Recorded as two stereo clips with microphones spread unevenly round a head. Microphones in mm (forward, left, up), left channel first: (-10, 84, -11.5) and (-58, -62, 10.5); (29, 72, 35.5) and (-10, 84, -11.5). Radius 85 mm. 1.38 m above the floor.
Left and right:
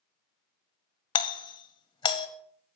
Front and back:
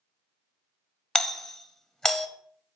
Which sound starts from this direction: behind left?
A doorbell, at 1.1 s.